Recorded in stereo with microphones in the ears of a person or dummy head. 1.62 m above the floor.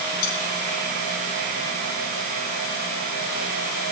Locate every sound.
0.2 s cutlery clinking: 75° left (ahead or behind), 4.5 m